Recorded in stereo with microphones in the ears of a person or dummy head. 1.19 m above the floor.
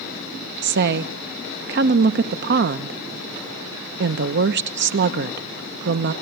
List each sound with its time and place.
0.6 s a woman speaking: 55° right (ahead or behind), 0.7 m